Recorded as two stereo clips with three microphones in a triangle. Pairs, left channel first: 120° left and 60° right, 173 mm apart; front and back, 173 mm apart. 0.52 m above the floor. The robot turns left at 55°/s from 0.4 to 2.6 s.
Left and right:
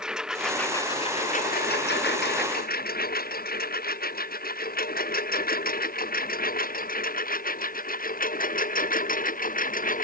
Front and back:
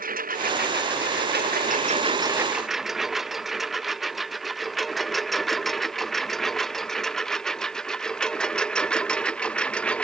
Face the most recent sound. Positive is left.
turn(degrees=85)